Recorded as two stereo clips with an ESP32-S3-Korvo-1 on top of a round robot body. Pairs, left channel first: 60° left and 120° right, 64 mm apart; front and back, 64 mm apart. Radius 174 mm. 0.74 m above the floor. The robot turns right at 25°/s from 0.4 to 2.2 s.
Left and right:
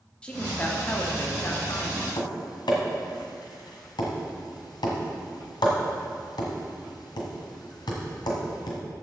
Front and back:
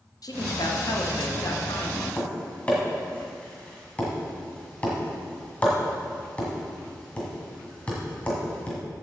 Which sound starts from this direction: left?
Tapping, at 2.2 s.